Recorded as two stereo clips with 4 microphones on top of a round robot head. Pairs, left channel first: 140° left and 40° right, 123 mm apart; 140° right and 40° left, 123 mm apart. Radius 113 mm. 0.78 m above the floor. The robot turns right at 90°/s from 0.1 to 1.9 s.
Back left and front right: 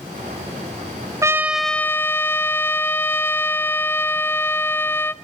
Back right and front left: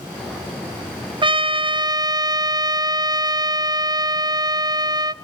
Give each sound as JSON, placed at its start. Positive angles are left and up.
{"t": 1.2, "sound": "a trumpet", "azimuth_deg": 15, "distance_m": 0.6}